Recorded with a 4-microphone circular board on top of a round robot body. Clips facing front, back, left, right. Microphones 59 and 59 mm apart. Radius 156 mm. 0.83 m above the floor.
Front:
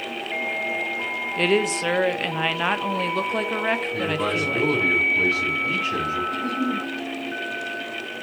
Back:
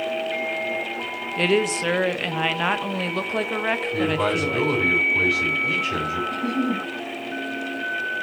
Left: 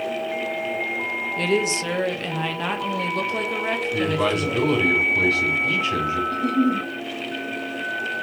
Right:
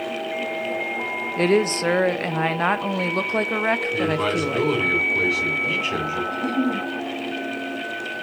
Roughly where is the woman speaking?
Right.